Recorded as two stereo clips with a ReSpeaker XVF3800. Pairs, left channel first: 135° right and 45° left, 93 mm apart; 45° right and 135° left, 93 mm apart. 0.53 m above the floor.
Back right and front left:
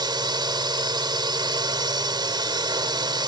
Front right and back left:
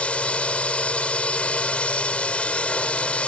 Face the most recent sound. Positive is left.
turn(degrees=30)